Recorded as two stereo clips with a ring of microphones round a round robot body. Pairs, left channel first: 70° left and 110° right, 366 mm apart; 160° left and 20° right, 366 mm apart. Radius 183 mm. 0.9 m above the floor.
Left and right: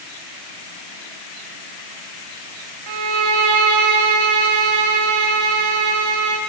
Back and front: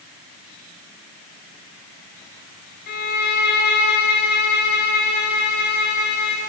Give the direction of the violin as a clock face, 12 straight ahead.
5 o'clock.